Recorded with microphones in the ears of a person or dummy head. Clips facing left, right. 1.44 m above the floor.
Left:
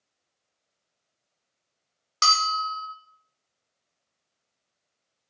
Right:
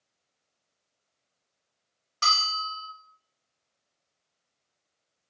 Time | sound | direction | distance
2.2 | a bell | 60° left (ahead or behind) | 0.8 m